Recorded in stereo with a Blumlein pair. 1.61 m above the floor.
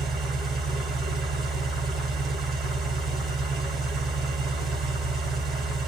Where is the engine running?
20° right, 1.4 m.